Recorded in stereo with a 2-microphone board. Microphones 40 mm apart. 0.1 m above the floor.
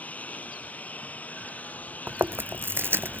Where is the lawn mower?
40° left (ahead or behind); by 3.2 s 45° left (ahead or behind).